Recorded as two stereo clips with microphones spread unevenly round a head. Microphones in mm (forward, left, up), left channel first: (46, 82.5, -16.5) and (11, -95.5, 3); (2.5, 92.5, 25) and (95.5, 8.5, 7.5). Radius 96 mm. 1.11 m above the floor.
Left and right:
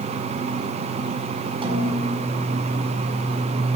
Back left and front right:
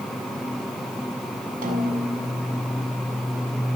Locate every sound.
1.6 s a snare drum: 40° right, 7 m